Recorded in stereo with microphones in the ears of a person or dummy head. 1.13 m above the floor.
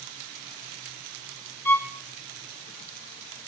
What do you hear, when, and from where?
1.6 s a violin: 10° left (ahead or behind), 1.4 m